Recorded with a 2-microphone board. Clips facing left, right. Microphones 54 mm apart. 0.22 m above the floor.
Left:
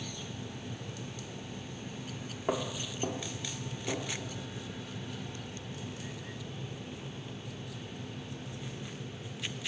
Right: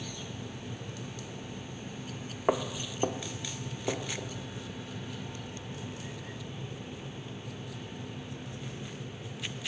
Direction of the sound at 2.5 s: 35° right (ahead or behind).